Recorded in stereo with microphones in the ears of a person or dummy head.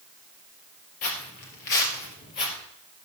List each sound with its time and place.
1.0 s footsteps: 45° left (ahead or behind), 2.5 m; by 2.6 s 40° left (ahead or behind), 2 m